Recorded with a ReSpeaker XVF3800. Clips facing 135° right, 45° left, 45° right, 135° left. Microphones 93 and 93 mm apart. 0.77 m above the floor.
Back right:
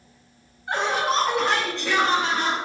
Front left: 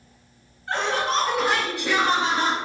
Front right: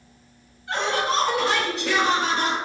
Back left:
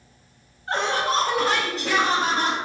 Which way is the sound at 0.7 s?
155° left.